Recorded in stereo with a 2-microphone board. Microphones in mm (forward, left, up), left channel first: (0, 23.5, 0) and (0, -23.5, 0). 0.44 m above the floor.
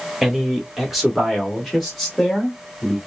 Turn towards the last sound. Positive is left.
turn(degrees=5)  # may be behind; listen again after turning